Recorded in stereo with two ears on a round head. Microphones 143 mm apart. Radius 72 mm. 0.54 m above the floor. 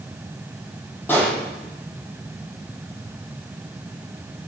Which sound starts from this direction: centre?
A pop, at 1.1 s.